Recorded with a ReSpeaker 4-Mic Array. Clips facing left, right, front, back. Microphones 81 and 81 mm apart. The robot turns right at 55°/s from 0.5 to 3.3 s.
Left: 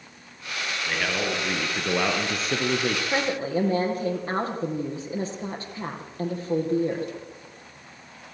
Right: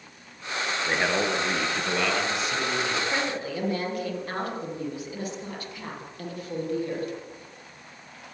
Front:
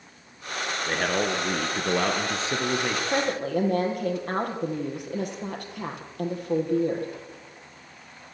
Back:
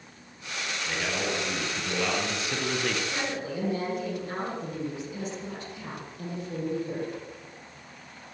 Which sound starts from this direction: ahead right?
A man speaking, at 0.9 s.